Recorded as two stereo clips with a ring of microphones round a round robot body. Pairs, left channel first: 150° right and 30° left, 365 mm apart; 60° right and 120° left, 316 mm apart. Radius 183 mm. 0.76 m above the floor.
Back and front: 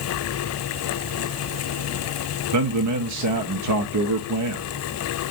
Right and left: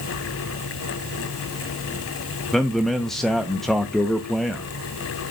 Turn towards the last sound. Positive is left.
turn(degrees=30)